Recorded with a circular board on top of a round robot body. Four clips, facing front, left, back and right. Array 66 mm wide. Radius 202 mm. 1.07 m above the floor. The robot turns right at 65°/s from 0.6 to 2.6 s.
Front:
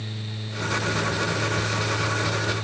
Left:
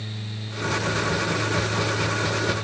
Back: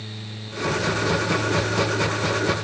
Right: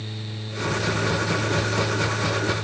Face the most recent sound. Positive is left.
No sound to turn to.